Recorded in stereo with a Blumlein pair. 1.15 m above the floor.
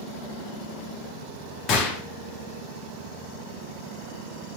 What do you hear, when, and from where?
1.7 s a gunshot: 30° left, 1.4 m